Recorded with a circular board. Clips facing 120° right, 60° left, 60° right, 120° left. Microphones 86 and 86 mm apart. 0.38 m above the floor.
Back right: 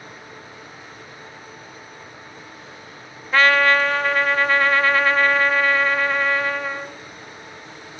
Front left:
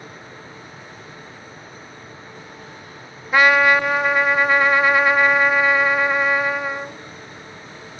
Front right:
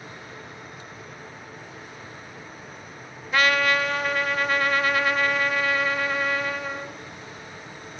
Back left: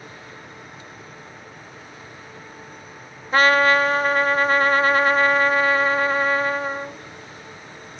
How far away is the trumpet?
About 0.8 m.